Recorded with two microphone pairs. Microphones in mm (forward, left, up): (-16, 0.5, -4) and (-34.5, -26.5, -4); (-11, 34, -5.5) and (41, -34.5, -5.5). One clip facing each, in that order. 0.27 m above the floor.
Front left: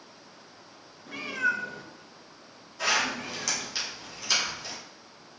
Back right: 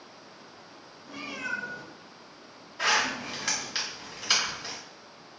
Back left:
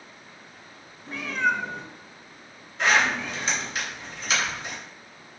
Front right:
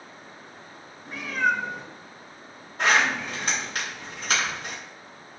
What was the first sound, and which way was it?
A cat meowing, 30° left.